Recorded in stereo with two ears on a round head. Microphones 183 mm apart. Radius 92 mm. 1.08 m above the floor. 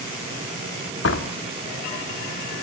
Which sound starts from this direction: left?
A door slam, at 1.0 s.